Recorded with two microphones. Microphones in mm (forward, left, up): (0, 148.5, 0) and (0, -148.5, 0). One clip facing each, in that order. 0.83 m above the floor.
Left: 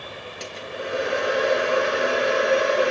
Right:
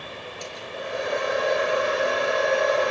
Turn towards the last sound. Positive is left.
turn(degrees=85)